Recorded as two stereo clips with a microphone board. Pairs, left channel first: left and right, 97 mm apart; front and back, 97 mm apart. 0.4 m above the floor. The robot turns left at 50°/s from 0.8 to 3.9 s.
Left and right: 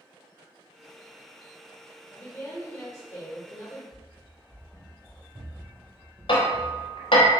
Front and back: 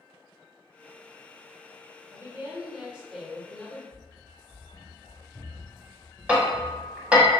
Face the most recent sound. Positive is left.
turn(degrees=100)